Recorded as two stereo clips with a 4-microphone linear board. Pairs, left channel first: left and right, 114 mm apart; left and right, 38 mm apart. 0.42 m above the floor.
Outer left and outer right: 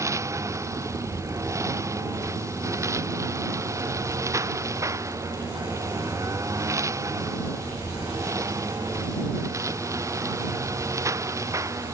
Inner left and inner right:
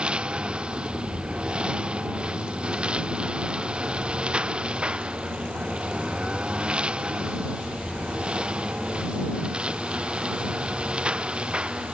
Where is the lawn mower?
25° right (ahead or behind).